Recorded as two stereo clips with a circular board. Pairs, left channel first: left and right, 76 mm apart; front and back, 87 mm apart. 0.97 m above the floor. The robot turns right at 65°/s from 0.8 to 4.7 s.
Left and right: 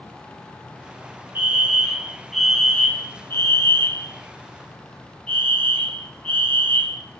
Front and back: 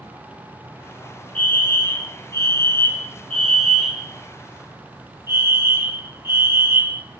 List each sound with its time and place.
1.4 s a fire alarm: 60° right, 1.4 m; by 7.0 s 155° left, 1.4 m